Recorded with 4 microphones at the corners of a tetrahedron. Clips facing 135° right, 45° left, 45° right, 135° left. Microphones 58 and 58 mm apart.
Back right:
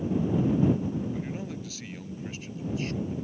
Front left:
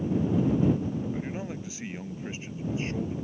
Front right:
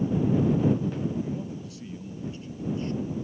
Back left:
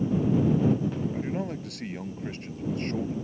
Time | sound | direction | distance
1.1 | a man speaking | 115° left | ?